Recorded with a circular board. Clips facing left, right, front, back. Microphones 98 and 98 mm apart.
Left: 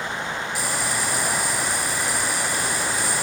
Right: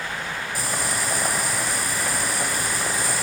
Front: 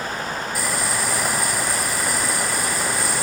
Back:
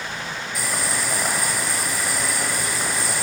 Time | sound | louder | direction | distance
0.6 | boiling | right 1 dB, even | 90° right | 0.8 m